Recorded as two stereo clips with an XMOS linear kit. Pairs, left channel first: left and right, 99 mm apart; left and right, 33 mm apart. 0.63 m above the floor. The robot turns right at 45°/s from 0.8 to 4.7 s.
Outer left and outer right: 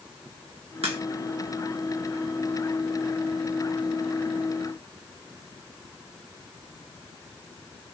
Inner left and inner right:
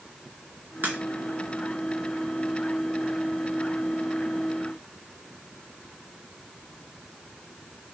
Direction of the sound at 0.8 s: 75° right (ahead or behind).